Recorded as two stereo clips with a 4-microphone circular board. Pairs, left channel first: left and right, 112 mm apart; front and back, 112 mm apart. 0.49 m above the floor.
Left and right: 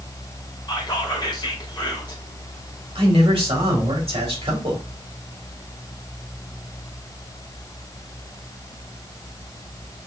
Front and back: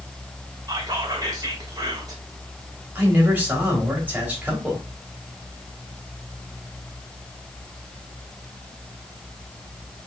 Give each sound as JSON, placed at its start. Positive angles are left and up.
{"t": 0.7, "sound": "whispering", "azimuth_deg": 130, "distance_m": 1.5}
{"t": 3.0, "sound": "a man speaking", "azimuth_deg": -105, "distance_m": 2.5}